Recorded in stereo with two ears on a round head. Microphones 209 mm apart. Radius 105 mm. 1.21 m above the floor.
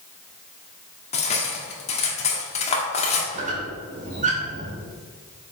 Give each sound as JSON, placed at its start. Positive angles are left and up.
{"t": 1.1, "sound": "cutlery clinking", "side_deg": 30, "distance_m": 1.6}
{"t": 3.3, "sound": "a squeak", "side_deg": -35, "distance_m": 2.0}